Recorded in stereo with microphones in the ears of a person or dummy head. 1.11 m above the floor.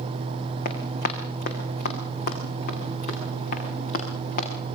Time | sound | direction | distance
0.7 | running footsteps | 40° left (ahead or behind) | 4.5 m